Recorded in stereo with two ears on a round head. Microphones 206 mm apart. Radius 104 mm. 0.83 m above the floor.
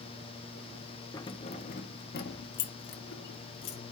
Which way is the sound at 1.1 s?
15° left (ahead or behind).